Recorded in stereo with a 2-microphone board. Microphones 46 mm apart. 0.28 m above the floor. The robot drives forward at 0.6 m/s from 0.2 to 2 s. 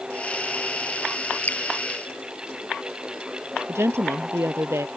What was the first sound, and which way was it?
Dripping, 40° left (ahead or behind).